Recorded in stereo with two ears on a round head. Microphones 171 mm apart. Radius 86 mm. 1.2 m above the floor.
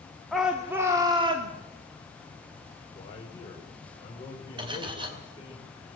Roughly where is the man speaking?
Left.